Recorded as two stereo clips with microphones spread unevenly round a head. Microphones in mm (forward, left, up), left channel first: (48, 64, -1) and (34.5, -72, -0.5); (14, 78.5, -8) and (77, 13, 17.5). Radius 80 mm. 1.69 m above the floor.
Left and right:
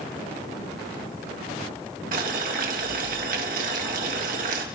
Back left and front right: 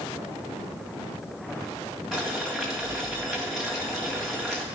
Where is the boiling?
125° right, 1.6 m.